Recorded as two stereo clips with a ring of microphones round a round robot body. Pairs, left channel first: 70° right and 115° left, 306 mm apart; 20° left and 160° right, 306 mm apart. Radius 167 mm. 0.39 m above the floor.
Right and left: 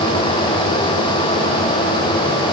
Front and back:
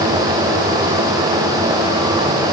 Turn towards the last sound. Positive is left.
No sound to turn to.